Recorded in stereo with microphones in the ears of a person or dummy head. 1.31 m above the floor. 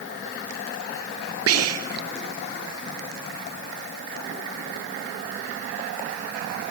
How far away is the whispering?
About 0.6 m.